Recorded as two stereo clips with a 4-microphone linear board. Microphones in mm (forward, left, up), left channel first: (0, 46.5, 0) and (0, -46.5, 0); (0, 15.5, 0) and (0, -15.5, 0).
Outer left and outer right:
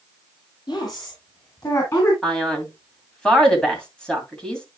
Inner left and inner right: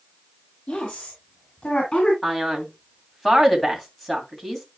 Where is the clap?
I don't hear a clap.